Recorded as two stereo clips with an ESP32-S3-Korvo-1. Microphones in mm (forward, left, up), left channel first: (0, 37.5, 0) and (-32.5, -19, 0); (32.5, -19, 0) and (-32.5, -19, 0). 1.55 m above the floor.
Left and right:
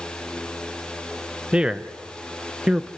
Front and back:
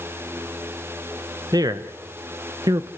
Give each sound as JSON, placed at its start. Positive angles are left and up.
{"t": 1.5, "sound": "a man speaking", "azimuth_deg": 165, "distance_m": 1.0}